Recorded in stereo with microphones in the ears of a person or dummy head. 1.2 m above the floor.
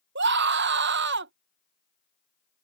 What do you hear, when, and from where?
0.1 s a scream: 55° right (ahead or behind)